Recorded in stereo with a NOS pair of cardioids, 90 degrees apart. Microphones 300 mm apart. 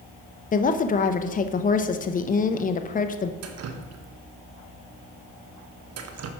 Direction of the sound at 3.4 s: 55° right.